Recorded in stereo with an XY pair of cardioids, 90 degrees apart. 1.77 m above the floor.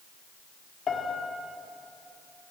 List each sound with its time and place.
0.9 s a piano: 60° left, 4 m